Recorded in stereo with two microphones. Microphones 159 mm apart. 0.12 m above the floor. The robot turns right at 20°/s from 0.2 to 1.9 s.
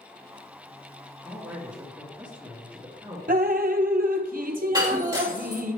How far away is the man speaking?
About 2 m.